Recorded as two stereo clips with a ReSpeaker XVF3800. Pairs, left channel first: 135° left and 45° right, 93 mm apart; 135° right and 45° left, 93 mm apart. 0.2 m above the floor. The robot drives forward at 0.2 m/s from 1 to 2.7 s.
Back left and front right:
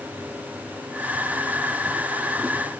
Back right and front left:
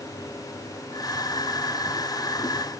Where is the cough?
No cough in this recording.